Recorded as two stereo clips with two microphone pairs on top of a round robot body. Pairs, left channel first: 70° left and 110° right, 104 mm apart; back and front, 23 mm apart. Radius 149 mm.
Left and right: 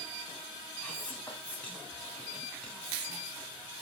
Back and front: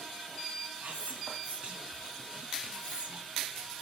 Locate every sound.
0.8 s whispering: 10° right, 3 m